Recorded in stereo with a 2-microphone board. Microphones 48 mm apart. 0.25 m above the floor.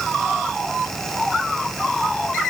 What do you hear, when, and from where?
Only background noise.